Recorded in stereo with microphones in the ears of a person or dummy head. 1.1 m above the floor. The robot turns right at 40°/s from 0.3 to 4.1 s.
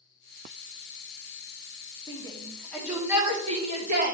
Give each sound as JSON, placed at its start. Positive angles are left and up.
{"t": 2.1, "sound": "a shout", "side_deg": 25, "distance_m": 2.5}